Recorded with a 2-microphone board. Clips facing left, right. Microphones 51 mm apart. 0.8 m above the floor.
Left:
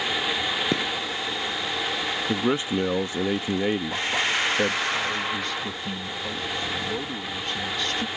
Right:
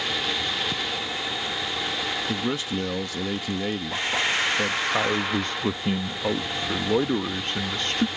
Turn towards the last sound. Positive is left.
turn(degrees=-45)  # may be behind; listen again after turning